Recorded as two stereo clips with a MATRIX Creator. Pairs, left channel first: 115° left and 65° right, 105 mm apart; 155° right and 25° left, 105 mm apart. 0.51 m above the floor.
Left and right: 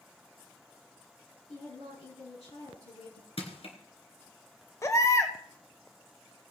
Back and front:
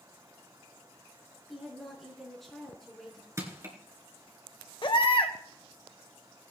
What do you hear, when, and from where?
1.5 s a woman speaking: 115° left, 6 m
3.4 s crushing: 85° left, 3 m
4.8 s a baby crying: 170° left, 1.4 m